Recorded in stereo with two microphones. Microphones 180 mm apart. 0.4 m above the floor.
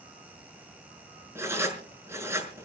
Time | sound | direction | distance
1.4 | writing | 15° right (ahead or behind) | 5 m